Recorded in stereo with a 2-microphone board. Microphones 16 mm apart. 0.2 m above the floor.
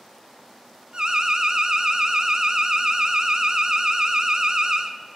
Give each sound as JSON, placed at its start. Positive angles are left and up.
{"t": 0.9, "sound": "an alarm", "side_deg": -45, "distance_m": 1.4}